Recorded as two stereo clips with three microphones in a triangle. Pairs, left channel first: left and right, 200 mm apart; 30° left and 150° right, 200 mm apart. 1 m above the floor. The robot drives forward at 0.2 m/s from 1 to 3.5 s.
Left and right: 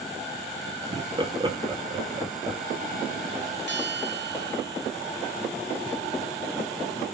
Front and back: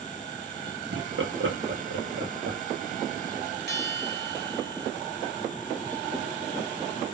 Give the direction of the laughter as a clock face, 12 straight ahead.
5 o'clock.